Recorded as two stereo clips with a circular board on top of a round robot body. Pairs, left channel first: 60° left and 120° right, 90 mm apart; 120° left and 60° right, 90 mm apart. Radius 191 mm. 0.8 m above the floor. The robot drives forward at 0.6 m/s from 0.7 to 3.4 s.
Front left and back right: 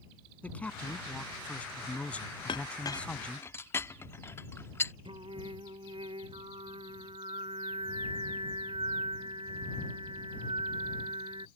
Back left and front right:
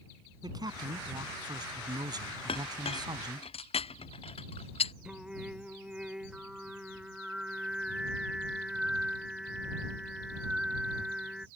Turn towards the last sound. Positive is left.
turn(degrees=-145)